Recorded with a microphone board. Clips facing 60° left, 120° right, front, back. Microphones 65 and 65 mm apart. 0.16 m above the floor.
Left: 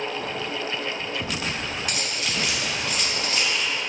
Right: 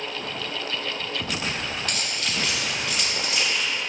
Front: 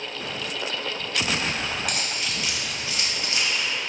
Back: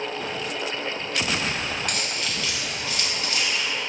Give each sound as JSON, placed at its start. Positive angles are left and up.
{"t": 1.9, "sound": "keys jangling", "azimuth_deg": 75, "distance_m": 0.8}